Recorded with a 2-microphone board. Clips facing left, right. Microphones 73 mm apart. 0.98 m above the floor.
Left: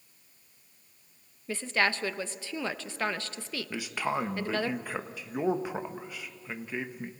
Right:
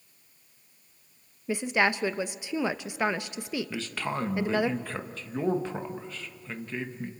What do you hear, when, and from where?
1.5 s a woman speaking: 15° right (ahead or behind), 0.8 m
3.7 s a man speaking: 15° left (ahead or behind), 1.2 m